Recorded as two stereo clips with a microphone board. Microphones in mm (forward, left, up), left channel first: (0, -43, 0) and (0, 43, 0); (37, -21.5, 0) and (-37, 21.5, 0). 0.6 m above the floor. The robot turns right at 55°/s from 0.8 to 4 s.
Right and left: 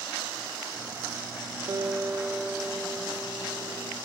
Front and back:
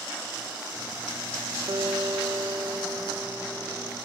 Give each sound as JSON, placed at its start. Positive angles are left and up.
{"t": 1.7, "sound": "a guitar", "azimuth_deg": 125, "distance_m": 0.8}